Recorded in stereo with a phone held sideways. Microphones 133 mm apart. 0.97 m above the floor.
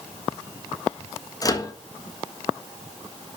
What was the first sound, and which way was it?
A microwave, 30° left (ahead or behind).